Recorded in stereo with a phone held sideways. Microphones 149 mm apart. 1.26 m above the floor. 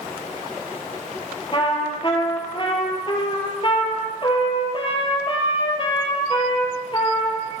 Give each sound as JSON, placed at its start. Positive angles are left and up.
{"t": 1.5, "sound": "a trumpet", "side_deg": 35, "distance_m": 5.5}